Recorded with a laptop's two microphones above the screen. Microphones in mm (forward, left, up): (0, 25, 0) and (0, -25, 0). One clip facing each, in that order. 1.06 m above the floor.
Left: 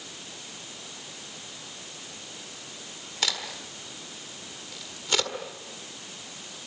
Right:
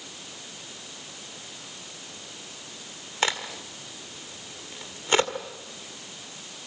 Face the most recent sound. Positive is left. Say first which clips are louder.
# right 4 dB
turn(degrees=-30)  # may be behind; listen again after turning